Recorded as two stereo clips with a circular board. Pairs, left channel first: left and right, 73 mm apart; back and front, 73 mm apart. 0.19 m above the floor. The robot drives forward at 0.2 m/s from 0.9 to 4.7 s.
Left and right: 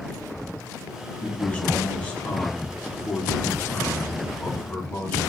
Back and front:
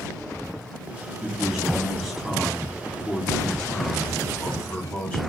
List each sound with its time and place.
1.2 s a man speaking: 60° left, 1.3 m; by 5.2 s 140° left, 1.3 m